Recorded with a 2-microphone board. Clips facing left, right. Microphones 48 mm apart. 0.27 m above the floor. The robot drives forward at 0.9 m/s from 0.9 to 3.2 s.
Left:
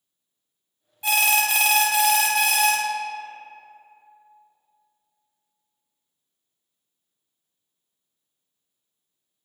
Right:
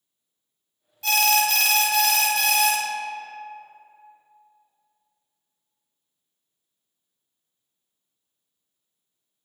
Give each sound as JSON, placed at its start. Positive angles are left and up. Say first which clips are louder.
{"t": 1.0, "sound": "an alarm", "louder": "even", "side_deg": 15, "distance_m": 1.0}